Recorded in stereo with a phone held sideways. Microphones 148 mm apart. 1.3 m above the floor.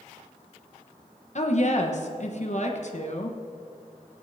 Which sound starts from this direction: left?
A woman speaking, at 1.4 s.